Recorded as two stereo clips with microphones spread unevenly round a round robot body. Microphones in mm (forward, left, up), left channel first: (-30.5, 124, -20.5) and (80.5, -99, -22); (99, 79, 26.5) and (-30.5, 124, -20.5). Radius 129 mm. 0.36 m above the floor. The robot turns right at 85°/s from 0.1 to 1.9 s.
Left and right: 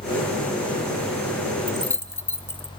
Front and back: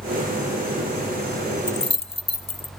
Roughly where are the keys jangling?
Ahead.